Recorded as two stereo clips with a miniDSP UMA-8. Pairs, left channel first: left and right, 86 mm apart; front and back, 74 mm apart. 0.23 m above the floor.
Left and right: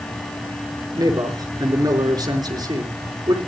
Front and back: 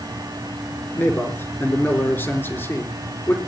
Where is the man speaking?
60° right, 4 m.